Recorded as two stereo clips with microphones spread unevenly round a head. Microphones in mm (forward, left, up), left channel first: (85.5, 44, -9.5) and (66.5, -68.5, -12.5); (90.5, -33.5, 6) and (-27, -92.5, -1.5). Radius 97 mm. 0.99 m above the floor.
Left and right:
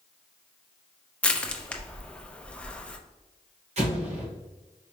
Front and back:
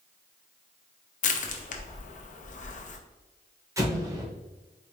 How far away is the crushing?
About 0.7 m.